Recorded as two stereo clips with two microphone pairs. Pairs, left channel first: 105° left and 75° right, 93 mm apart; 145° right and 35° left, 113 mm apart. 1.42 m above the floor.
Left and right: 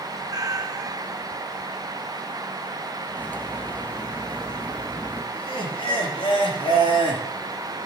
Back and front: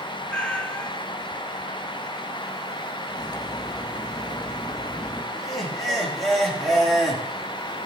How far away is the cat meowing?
About 1.1 m.